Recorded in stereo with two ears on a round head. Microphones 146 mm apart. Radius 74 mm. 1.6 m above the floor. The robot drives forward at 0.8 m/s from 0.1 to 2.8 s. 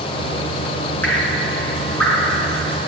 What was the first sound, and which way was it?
Dripping, 10° left (ahead or behind).